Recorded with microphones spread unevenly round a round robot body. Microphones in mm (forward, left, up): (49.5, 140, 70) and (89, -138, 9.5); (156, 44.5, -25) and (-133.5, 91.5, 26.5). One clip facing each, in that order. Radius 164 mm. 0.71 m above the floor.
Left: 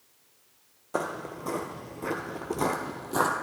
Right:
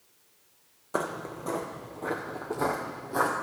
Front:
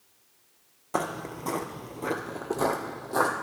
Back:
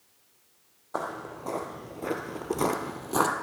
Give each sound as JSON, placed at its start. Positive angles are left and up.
{"t": 0.9, "sound": "footsteps", "azimuth_deg": 15, "distance_m": 0.9}